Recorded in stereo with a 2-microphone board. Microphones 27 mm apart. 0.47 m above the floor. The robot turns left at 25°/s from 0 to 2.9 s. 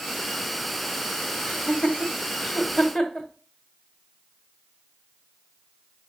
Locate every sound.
1.4 s laughter: 60° left (ahead or behind), 1.3 m; by 3.3 s 35° left (ahead or behind), 1.3 m